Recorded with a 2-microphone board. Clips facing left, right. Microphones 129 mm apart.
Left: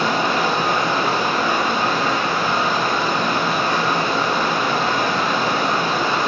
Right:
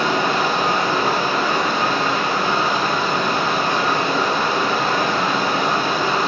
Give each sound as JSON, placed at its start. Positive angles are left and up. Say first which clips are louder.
{"t": 0.0, "sound": "running water", "louder": "even", "side_deg": -45, "distance_m": 1.1}